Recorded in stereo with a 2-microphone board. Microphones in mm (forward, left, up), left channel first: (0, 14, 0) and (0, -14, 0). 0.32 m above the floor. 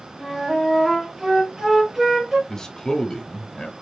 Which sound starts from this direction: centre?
A flute, at 0.2 s.